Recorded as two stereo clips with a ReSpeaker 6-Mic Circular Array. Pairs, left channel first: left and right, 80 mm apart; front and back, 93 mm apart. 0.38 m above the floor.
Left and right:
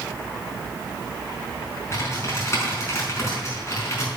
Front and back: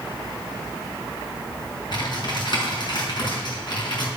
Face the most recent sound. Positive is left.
turn(degrees=35)